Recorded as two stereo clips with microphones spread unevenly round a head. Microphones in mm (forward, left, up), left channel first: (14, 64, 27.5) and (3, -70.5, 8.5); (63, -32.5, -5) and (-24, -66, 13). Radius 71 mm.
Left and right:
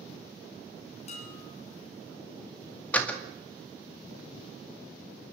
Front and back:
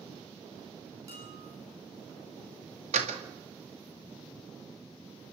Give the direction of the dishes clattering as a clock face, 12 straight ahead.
8 o'clock.